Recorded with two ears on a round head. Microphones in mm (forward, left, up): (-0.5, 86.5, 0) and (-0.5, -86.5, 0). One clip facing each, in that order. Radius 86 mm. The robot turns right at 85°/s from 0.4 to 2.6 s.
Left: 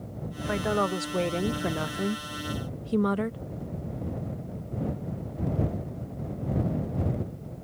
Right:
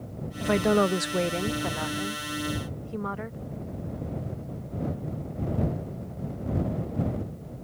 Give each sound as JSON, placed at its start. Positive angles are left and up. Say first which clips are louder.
{"t": 0.4, "sound": "a woman speaking", "louder": "right 5 dB", "azimuth_deg": -70}